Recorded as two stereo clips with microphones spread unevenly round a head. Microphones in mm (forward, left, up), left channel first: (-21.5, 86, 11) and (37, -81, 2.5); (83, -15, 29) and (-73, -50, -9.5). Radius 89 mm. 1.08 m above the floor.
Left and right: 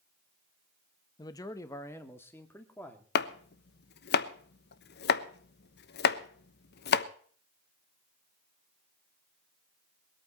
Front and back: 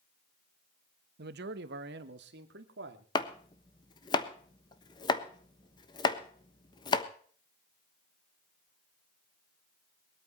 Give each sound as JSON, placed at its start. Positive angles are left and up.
{"t": 1.2, "sound": "a man speaking", "azimuth_deg": 180, "distance_m": 1.0}
{"t": 3.1, "sound": "chopping", "azimuth_deg": 85, "distance_m": 1.1}